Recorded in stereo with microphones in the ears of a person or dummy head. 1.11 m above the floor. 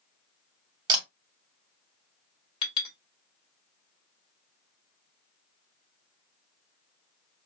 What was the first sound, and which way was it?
A camera shutter, 20° right (ahead or behind).